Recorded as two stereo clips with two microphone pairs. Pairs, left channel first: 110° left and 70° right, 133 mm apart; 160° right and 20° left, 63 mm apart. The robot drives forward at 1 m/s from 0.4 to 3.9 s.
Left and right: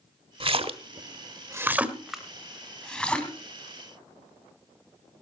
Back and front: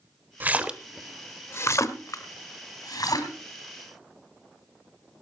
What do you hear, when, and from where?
0.4 s a splash: 30° right, 1.0 m; by 3.3 s 170° right, 2.5 m